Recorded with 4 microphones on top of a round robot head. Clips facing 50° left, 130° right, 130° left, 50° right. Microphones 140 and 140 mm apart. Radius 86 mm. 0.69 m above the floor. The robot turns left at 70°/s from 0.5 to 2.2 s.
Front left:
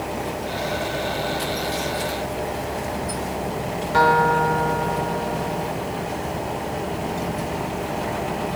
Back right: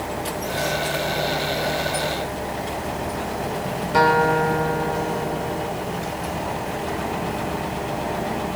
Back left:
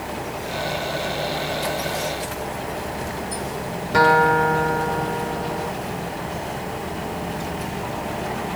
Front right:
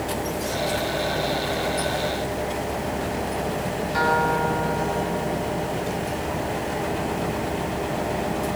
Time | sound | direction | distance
3.9 | a guitar | 150° left | 3.5 m